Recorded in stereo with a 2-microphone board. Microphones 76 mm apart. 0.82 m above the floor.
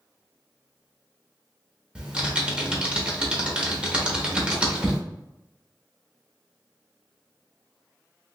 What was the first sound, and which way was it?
Typing on a keyboard, 15° right (ahead or behind).